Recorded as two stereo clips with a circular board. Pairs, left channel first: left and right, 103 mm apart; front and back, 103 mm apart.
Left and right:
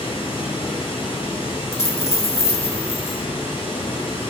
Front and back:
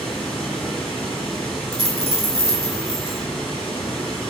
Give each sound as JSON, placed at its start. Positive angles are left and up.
{"t": 0.0, "sound": "running water", "azimuth_deg": 85, "distance_m": 1.4}
{"t": 1.7, "sound": "a dropped coin", "azimuth_deg": 155, "distance_m": 1.2}